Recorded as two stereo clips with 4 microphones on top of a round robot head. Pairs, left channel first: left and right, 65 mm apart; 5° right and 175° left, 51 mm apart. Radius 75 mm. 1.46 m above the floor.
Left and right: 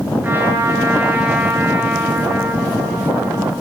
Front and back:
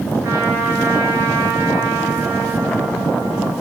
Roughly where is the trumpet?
Behind right.